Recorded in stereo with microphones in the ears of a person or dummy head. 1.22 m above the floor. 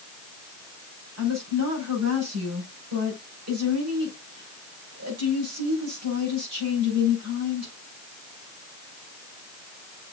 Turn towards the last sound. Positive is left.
turn(degrees=-65)  # may be behind; listen again after turning